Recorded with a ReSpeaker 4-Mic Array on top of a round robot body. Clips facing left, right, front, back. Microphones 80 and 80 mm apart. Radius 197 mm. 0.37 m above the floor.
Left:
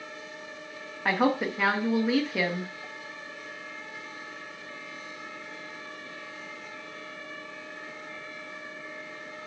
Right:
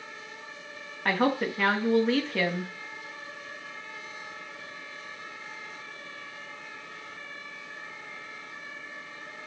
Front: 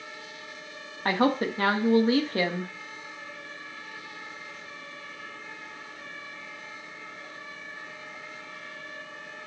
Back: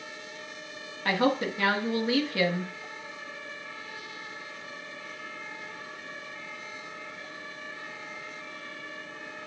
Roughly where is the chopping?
I don't hear chopping.